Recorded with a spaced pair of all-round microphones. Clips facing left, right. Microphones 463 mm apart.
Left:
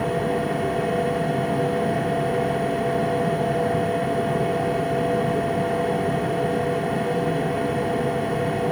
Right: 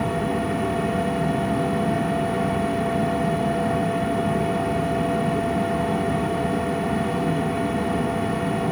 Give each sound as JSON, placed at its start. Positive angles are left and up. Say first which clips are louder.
{"t": 0.0, "sound": "a machine running", "louder": "left 1 dB", "side_deg": -25, "distance_m": 1.9}